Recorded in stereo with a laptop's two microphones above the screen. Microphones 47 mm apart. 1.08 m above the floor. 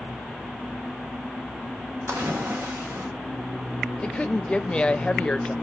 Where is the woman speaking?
25° left (ahead or behind), 0.5 m.